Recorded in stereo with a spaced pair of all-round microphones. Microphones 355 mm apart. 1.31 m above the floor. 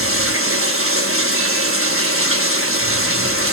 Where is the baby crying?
No baby crying in this recording.